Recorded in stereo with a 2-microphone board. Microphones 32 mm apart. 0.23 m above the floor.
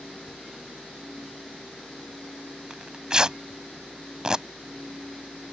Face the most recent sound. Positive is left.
turn(degrees=-25)  # may be behind; listen again after turning